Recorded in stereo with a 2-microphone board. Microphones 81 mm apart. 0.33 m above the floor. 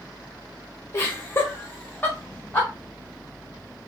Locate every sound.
0.9 s laughter: 35° left (ahead or behind), 1.3 m; by 2.7 s 15° left (ahead or behind), 1.6 m